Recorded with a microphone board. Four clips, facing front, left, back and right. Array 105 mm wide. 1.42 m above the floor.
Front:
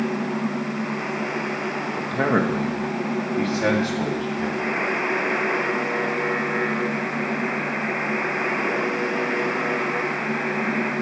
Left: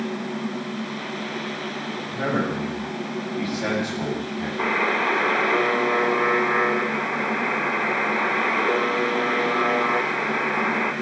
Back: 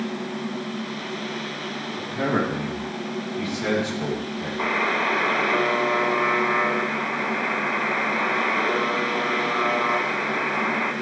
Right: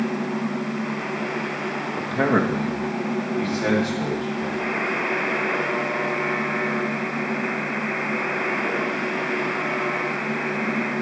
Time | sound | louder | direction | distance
2.0 | a man speaking | right 5 dB, front 2 dB | 50° right | 1.7 m
4.6 | a buzzer | left 3 dB, back 1 dB | 105° left | 2.5 m